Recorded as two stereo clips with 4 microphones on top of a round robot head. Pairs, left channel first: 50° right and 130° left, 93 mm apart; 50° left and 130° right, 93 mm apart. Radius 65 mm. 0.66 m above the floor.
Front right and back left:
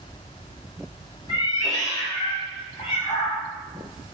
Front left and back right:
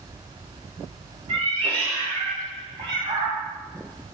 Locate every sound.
1.3 s a cat meowing: 100° right, 1.9 m; by 3.4 s 90° right, 3 m